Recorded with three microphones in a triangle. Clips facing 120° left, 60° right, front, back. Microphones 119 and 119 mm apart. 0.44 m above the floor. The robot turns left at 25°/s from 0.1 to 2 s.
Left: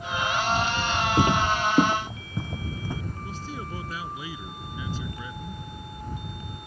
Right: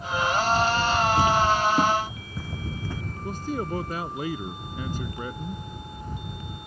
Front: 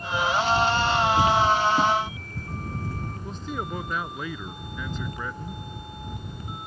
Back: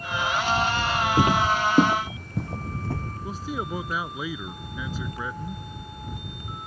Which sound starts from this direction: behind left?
Footsteps, at 1.2 s.